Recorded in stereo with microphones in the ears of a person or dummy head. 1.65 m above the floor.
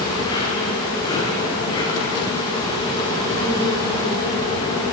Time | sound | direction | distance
0.0 | an insect | 20° left (ahead or behind) | 9.5 m